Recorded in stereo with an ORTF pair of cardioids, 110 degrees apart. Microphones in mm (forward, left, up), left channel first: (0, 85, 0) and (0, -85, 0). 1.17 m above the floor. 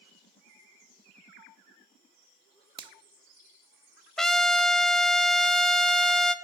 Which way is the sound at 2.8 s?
30° right.